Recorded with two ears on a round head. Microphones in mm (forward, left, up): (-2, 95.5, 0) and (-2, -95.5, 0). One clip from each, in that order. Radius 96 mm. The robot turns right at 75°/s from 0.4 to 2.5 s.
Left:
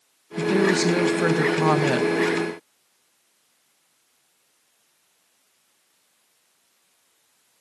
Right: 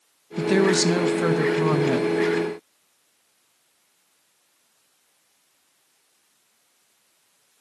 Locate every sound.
0.4 s a woman speaking: 45° right, 0.7 m; by 2.1 s 85° left, 0.7 m